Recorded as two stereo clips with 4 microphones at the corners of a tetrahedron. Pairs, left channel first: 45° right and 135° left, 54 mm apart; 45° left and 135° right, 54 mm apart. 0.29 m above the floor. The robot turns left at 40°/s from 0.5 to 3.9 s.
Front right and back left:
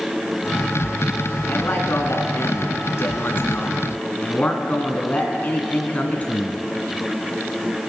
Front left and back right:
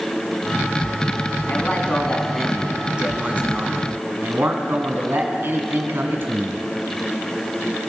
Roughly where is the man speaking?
Ahead.